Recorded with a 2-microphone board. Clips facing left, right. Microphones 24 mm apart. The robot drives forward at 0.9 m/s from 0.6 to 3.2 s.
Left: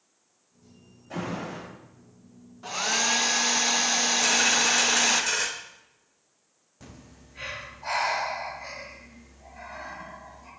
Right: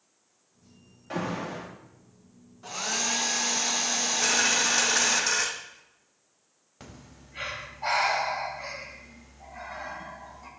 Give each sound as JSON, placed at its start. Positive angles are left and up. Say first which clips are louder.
{"t": 1.1, "sound": "an alarm", "louder": "right 1 dB", "side_deg": -50, "distance_m": 2.5}
{"t": 2.6, "sound": "a hair dryer", "louder": "left 4 dB", "side_deg": 20, "distance_m": 0.6}
{"t": 4.2, "sound": "a dropped coin", "louder": "even", "side_deg": -45, "distance_m": 2.5}
{"t": 6.8, "sound": "breathing", "louder": "right 1 dB", "side_deg": -80, "distance_m": 5.0}